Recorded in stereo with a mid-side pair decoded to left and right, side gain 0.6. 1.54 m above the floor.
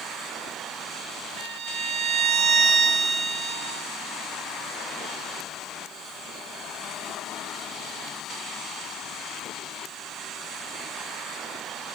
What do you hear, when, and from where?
1.4 s a violin: 55° right, 1.1 m